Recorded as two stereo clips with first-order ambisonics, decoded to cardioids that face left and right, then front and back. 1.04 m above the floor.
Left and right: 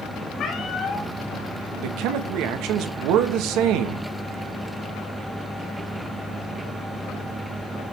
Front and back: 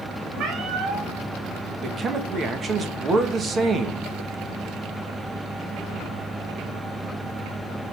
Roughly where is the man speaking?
Behind right.